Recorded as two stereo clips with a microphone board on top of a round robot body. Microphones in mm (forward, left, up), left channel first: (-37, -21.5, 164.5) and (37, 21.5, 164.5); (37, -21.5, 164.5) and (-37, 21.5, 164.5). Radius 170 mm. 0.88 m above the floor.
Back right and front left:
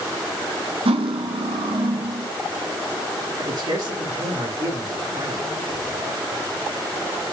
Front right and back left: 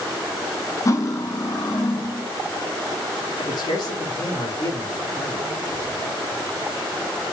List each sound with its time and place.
0.8 s cutlery clinking: 25° left, 0.5 m
3.4 s a man speaking: straight ahead, 3.5 m